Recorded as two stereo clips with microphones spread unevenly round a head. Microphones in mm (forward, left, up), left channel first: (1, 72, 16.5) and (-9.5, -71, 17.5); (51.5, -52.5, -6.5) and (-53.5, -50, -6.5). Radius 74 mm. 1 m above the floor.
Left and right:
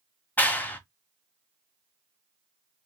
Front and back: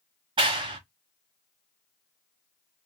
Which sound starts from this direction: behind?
A clap, at 0.4 s.